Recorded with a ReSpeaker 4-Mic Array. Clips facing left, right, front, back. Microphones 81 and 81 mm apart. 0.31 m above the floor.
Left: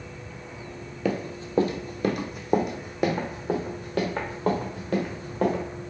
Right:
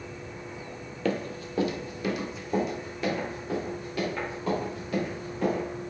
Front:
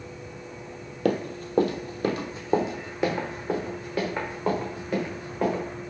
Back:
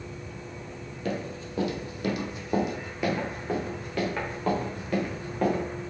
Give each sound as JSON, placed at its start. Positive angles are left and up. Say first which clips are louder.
{"t": 1.1, "sound": "running footsteps", "louder": "left 1 dB, front 7 dB", "azimuth_deg": 10, "distance_m": 0.6}